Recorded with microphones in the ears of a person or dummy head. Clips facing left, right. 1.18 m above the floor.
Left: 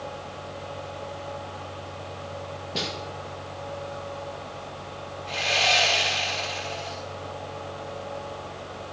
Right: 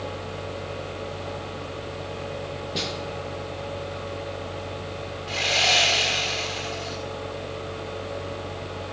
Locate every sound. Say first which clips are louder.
2.8 s a snare drum: even; centre (ahead or behind), 1.8 m
5.3 s sawing: even; 5° right (ahead or behind), 1.8 m